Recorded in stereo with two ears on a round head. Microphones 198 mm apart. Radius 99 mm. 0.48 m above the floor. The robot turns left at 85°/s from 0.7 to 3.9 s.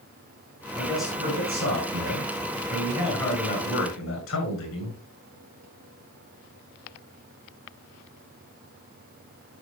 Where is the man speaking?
20° left, 8 m; by 5.0 s 110° left, 8 m.